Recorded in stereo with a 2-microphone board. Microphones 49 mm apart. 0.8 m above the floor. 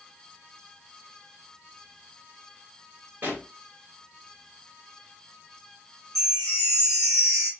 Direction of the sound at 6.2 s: 90° right.